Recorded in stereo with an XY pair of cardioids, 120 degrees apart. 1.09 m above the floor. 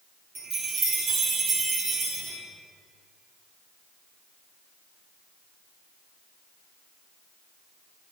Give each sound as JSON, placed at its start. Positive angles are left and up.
{"t": 0.3, "sound": "a chime", "azimuth_deg": -60, "distance_m": 2.5}